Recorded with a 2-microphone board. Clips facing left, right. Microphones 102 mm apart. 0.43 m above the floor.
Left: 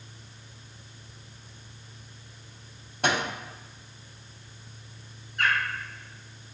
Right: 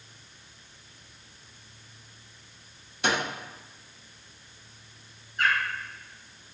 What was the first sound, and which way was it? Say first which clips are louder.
A microwave: left 1 dB; 50° left (ahead or behind).